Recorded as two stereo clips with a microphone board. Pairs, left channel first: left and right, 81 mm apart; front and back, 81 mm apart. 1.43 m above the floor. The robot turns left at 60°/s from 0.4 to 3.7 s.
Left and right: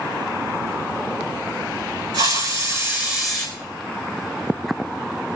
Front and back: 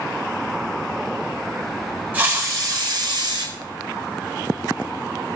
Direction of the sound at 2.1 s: 110° right.